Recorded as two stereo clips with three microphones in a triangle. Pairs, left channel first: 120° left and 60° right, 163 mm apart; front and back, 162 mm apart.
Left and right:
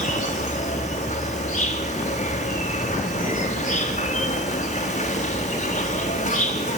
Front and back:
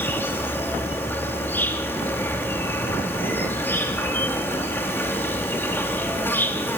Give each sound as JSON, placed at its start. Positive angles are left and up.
{"t": 0.0, "sound": "an insect", "azimuth_deg": 80, "distance_m": 4.0}